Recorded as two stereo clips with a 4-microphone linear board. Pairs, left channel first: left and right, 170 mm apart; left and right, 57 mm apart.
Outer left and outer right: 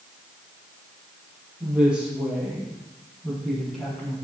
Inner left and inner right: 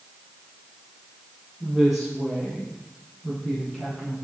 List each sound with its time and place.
1.6 s a woman speaking: 10° right (ahead or behind), 4 m; by 4.1 s 5° left (ahead or behind), 5.5 m